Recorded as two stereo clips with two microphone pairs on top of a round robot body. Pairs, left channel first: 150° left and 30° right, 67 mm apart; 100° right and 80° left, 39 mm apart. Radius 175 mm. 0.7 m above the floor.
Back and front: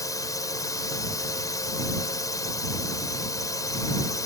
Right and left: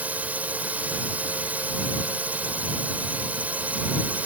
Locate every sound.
0.0 s a drone: 125° left